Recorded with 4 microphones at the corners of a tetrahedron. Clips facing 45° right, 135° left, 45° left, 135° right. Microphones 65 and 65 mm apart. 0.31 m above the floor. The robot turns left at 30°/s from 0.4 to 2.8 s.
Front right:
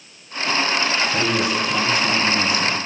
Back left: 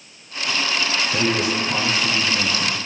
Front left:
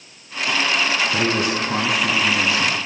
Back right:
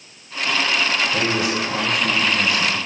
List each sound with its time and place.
1.1 s a man speaking: 75° left, 3.5 m; by 2.8 s 25° left, 3.5 m